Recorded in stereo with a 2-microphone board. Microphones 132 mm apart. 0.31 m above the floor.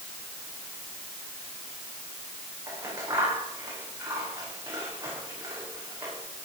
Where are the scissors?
20° right (ahead or behind), 9.5 m.